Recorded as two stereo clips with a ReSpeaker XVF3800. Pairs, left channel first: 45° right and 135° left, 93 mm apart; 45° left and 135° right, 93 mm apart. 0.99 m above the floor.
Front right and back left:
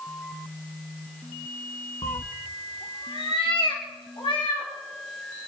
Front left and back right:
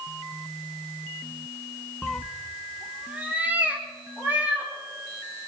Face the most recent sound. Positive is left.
turn(degrees=-65)